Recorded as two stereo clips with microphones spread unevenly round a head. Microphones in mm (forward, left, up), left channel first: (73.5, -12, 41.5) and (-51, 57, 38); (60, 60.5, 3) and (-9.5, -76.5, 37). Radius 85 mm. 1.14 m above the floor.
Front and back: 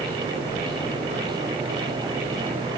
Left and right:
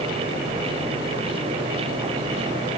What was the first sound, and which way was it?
Only background noise.